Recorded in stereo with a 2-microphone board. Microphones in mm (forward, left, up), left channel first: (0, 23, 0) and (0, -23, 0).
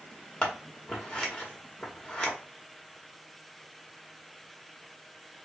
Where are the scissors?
15° left (ahead or behind), 1.3 m.